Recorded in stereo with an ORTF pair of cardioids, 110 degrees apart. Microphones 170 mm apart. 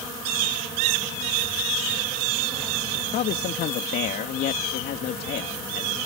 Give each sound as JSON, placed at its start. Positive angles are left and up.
{"t": 2.9, "sound": "a man speaking", "azimuth_deg": 65}